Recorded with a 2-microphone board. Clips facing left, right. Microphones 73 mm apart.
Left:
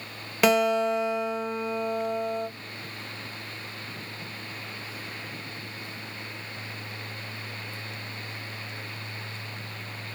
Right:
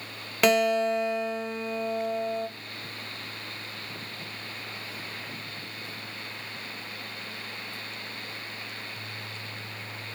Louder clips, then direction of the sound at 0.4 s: Left 1 dB; centre (ahead or behind).